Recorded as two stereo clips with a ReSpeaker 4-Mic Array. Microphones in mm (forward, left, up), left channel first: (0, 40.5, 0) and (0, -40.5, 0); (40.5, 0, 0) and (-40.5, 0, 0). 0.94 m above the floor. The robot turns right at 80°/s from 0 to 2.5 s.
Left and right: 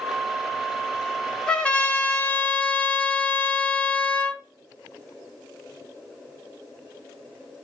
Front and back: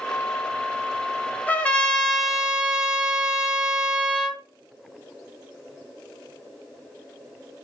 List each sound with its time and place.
1.5 s a trumpet: 30° left, 0.8 m; by 4.4 s 115° left, 0.8 m